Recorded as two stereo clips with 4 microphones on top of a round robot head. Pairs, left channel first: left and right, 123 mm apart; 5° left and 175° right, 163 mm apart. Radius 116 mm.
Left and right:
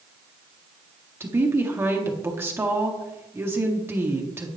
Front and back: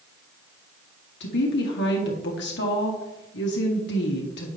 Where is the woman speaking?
20° right, 1.8 m.